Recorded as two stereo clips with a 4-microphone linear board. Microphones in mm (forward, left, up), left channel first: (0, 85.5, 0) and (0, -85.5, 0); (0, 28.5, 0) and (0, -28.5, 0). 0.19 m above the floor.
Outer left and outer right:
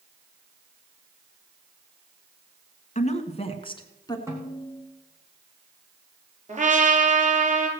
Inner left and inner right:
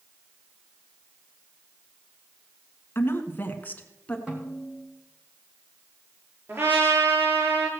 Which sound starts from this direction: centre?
A snare drum, at 4.3 s.